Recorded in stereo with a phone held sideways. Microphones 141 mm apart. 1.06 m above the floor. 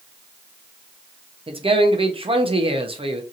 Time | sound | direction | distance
1.5 | a man speaking | 40° right (ahead or behind) | 0.6 m